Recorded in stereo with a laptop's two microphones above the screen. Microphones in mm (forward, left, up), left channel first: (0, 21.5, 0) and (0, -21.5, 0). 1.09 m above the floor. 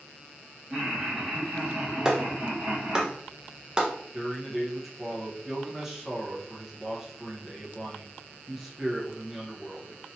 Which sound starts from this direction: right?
Laughter, at 0.7 s.